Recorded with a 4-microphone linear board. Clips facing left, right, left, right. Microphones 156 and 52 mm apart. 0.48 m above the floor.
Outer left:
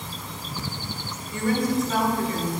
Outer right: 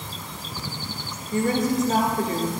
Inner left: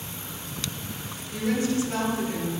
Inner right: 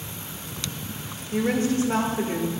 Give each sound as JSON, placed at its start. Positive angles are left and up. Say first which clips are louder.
{"t": 1.3, "sound": "a woman speaking", "louder": "outer right 1 dB, inner right 3 dB", "side_deg": -45, "distance_m": 1.3}